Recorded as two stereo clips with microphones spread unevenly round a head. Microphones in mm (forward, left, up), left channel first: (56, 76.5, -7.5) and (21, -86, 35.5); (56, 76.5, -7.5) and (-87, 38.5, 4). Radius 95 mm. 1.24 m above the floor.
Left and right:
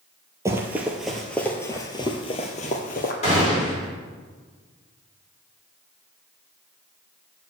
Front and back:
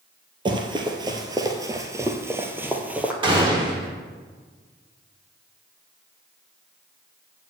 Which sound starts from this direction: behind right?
Running footsteps, at 0.5 s.